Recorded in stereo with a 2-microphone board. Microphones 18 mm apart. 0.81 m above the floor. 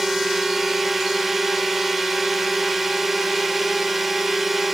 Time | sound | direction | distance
0.0 | a drone | 10° right (ahead or behind) | ?